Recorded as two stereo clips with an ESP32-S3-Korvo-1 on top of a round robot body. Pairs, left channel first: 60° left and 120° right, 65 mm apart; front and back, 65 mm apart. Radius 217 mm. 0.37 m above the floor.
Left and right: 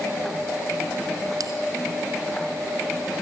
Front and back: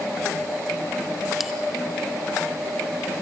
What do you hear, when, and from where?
1.4 s a bell: 95° right, 1.0 m